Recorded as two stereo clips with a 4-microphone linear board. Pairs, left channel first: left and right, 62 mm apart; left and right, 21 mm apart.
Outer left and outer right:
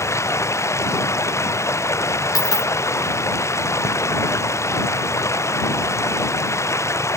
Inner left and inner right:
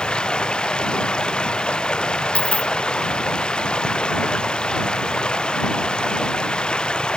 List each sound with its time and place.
0.0 s running water: 50° left (ahead or behind)
2.4 s a dropped coin: 85° left